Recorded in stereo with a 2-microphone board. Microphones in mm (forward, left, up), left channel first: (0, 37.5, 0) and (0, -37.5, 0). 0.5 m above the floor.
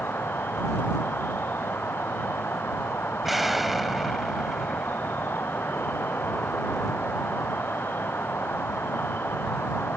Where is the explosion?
5° right (ahead or behind).